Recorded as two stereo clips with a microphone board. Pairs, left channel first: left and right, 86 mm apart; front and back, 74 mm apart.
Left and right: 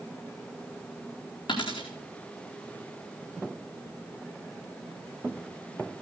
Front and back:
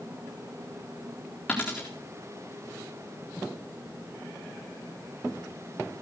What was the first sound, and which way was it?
A dropped coin, 75° left.